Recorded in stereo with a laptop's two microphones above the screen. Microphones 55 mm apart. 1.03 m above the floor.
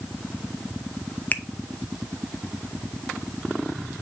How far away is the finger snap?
About 0.7 m.